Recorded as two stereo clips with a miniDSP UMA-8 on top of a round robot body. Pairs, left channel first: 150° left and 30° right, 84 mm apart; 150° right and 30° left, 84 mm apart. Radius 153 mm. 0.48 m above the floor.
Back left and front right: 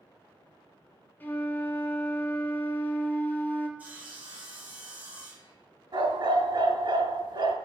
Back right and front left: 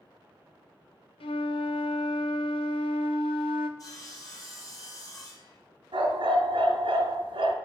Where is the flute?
140° right, 0.5 m.